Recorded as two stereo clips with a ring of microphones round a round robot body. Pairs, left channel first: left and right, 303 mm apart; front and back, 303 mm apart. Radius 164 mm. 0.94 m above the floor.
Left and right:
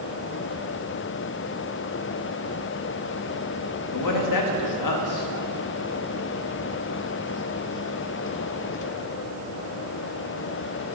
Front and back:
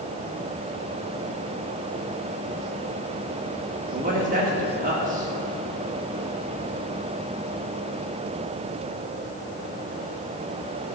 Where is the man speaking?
110° left, 1.5 m.